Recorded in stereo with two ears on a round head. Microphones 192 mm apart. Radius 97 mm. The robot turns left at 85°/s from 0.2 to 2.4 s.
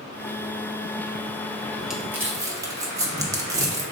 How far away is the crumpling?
About 0.7 m.